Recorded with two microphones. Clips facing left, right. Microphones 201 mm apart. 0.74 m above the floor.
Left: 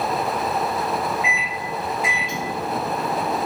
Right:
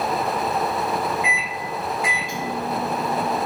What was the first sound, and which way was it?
A microwave, 25° left (ahead or behind).